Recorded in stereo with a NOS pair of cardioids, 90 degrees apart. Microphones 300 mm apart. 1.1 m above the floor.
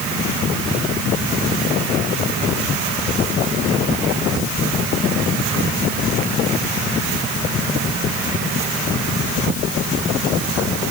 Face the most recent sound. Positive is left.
No sound to turn to.